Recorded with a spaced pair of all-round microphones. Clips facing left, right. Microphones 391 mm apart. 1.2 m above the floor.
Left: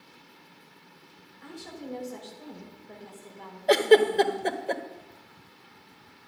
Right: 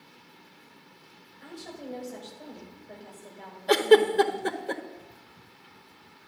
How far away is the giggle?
About 1.0 m.